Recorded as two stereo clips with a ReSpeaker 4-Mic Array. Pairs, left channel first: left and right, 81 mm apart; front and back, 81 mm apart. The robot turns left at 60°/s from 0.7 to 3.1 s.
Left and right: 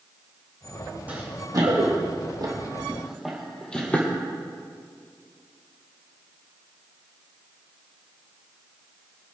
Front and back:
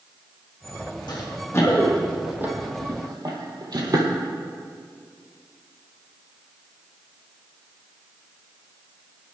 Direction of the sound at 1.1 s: 20° right.